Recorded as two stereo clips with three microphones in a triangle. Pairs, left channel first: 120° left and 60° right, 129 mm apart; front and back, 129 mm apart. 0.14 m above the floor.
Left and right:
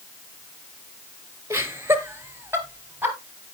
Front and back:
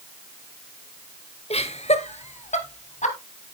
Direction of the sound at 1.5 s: 5° left.